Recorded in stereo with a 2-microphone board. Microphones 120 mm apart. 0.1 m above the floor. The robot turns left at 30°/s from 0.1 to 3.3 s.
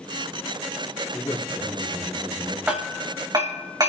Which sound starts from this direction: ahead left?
A man speaking, at 1.1 s.